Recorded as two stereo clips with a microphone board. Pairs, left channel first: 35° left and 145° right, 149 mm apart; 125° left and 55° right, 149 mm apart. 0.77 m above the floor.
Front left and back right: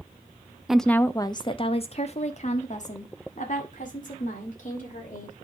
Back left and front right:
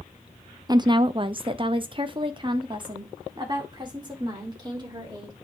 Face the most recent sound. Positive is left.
turn(degrees=5)